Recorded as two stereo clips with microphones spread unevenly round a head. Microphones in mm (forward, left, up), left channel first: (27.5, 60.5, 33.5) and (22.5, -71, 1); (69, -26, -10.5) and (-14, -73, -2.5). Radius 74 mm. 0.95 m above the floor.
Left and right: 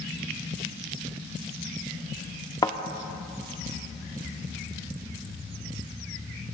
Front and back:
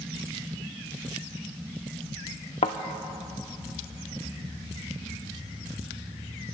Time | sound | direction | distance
2.6 | a thud | 40° left | 0.7 m